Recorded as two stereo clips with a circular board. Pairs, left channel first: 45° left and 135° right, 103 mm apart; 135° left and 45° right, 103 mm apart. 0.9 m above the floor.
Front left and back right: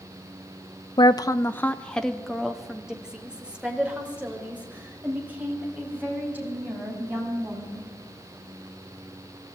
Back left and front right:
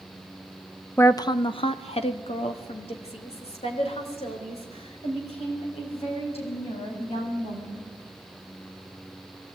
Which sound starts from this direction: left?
A woman speaking, at 1.0 s.